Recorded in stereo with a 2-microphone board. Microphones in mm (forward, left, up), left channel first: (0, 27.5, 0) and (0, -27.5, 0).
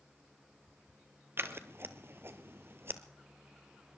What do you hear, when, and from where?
1.4 s scissors: 50° right (ahead or behind), 1.0 m